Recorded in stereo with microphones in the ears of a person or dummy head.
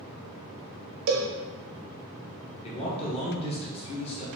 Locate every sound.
1.1 s a cowbell: 65° right (ahead or behind), 0.8 m
2.6 s a man speaking: 25° left (ahead or behind), 1.1 m